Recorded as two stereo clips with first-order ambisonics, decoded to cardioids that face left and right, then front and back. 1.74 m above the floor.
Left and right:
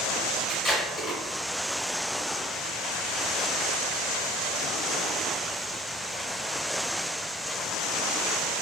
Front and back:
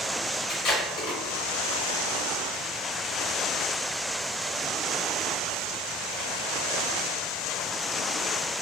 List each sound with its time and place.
0.5 s tape being pulled: 25° left, 1.1 m